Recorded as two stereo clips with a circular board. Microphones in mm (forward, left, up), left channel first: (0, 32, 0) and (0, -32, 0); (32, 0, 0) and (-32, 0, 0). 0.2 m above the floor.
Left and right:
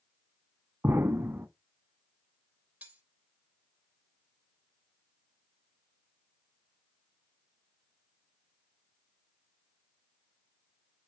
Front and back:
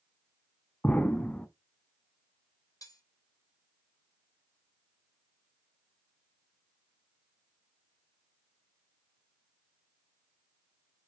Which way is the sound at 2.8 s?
20° right.